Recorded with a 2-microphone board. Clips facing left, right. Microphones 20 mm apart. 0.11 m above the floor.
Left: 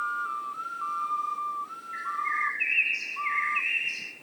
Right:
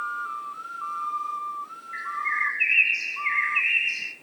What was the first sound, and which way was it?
A bird, 10° right (ahead or behind).